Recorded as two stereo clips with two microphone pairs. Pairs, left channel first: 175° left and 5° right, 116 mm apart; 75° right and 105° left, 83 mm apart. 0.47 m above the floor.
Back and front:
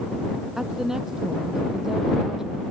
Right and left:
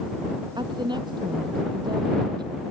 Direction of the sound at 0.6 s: 80° left.